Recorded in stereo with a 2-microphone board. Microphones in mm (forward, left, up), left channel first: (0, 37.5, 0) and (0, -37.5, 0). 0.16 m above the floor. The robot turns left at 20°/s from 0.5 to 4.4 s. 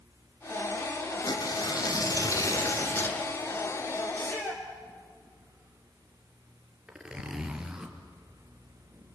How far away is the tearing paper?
About 2.5 m.